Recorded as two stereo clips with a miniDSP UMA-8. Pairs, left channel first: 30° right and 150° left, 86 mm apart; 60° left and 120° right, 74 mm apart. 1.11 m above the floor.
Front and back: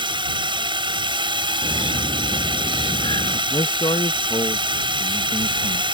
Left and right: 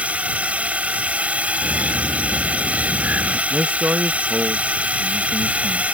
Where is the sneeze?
I don't hear a sneeze.